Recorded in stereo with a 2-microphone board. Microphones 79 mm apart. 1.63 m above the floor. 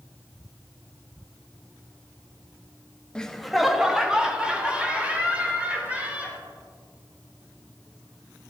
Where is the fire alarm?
I don't hear a fire alarm.